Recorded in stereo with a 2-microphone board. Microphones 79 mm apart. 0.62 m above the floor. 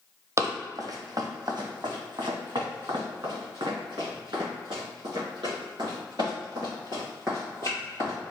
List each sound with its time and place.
0.4 s running footsteps: 35° right (ahead or behind), 0.8 m; by 8.2 s 65° right (ahead or behind), 5 m